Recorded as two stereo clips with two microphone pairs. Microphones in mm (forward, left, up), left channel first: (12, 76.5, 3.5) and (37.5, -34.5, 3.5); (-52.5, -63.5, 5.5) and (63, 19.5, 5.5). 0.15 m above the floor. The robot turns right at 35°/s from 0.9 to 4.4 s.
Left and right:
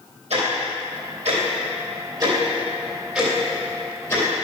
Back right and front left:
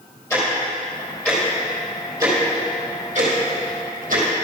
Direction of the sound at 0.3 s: 75° right.